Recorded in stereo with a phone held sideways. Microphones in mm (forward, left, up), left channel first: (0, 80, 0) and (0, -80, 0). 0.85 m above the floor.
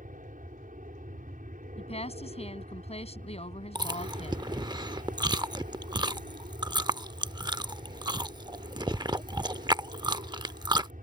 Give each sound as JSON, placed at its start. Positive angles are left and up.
{"t": 0.0, "sound": "an aircraft", "side_deg": -60}
{"t": 1.8, "sound": "a woman speaking", "side_deg": 40}
{"t": 3.8, "sound": "chewing", "side_deg": -30}